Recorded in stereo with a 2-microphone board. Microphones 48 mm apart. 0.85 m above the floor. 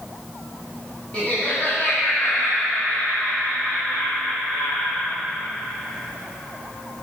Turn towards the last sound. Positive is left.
turn(degrees=70)  # may be behind; listen again after turning